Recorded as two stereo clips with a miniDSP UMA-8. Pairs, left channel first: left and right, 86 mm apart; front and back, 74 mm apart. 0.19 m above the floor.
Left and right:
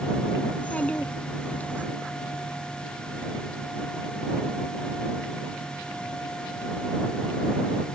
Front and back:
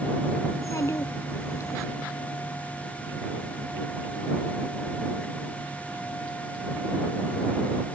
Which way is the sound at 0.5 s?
25° left.